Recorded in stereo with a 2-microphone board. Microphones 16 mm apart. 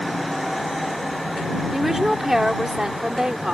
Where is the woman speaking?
15° right (ahead or behind); by 3.5 s 50° right (ahead or behind).